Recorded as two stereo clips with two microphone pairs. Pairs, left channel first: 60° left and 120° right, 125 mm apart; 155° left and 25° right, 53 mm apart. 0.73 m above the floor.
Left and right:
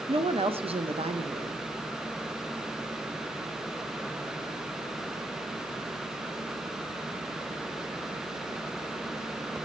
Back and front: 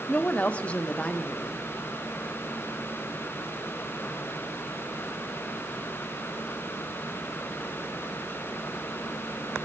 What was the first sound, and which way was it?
A woman speaking, 145° right.